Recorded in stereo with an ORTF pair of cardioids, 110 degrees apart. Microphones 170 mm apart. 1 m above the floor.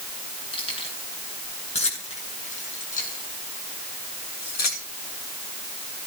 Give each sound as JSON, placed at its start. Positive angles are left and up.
{"t": 0.5, "sound": "keys jangling", "azimuth_deg": 30, "distance_m": 9.5}